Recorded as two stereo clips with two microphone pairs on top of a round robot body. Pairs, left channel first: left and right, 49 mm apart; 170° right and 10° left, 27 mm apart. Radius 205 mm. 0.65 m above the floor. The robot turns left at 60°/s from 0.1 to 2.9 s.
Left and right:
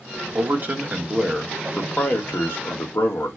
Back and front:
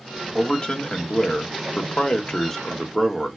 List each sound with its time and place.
0.3 s a man speaking: 110° right, 1.2 m; by 3.4 s 95° left, 1.2 m